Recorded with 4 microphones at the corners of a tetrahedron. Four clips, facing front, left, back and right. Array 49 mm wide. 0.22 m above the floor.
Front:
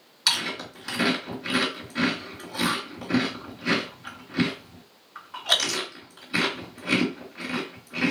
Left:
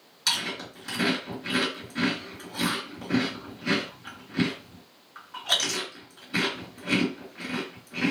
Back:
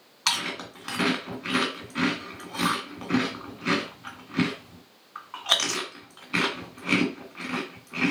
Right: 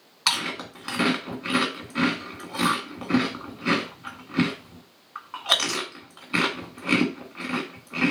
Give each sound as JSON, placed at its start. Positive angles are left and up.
{"t": 0.3, "sound": "chewing", "azimuth_deg": -105, "distance_m": 2.0}